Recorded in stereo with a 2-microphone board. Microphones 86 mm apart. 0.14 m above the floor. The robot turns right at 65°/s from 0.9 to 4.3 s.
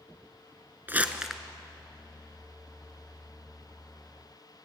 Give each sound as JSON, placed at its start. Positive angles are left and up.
{"t": 0.9, "sound": "crumpling", "side_deg": -25, "distance_m": 1.0}